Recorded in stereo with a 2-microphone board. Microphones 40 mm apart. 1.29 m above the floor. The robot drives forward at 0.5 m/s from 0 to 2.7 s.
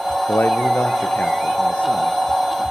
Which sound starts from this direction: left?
A man speaking, at 0.3 s.